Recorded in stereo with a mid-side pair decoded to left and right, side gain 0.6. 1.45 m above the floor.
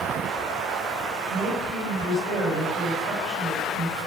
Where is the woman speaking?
55° right, 9 m.